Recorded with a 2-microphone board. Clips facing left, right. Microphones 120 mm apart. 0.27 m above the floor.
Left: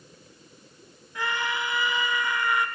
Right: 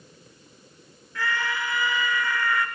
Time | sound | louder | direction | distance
1.1 | a scream | even | 20° left (ahead or behind) | 3.5 m